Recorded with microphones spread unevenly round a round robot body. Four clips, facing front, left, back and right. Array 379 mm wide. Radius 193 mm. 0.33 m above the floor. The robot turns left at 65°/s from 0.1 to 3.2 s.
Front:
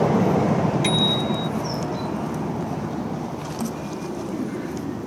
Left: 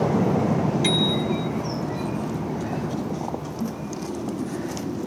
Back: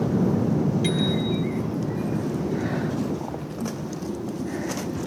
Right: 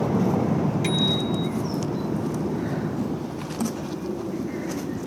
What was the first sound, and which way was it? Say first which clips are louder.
A bicycle bell: left 1 dB, front 2 dB; 15° left.